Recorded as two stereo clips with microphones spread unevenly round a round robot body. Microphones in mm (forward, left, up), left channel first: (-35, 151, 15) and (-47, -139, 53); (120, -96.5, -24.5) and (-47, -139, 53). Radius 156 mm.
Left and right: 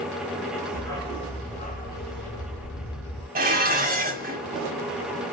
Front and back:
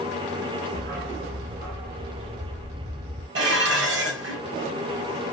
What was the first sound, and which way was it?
A dog barking, 170° left.